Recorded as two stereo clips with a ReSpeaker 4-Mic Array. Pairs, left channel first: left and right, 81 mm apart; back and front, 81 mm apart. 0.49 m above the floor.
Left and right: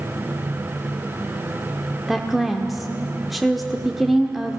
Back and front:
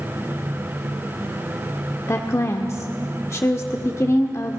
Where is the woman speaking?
Straight behind, 1.1 m.